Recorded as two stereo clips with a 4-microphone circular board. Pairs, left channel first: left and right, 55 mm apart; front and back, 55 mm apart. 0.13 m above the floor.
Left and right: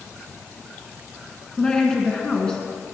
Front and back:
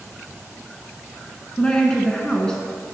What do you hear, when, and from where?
1.6 s a woman speaking: 45° left, 1.4 m